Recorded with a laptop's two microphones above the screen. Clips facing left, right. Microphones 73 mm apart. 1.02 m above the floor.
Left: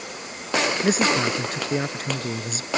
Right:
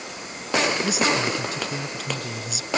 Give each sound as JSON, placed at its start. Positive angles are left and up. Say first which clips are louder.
{"t": 0.8, "sound": "a man speaking", "louder": "left 2 dB", "side_deg": 45}